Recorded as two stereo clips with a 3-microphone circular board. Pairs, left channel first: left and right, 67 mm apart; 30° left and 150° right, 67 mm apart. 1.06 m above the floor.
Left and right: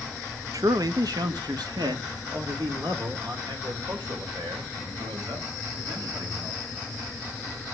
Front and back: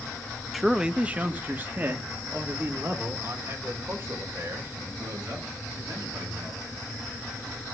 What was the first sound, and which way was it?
A man speaking, 60° right.